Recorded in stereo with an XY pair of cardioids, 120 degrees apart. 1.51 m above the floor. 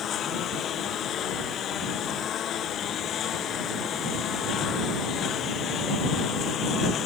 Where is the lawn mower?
55° left.